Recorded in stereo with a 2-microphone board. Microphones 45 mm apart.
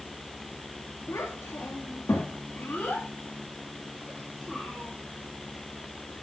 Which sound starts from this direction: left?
A child speaking, at 1.1 s.